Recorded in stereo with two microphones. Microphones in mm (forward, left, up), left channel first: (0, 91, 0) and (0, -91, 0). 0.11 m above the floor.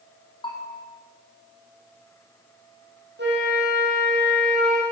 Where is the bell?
25° left (ahead or behind), 3.5 m.